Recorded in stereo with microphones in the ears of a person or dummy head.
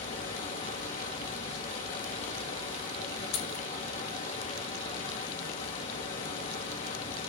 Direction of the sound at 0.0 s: 45° left (ahead or behind).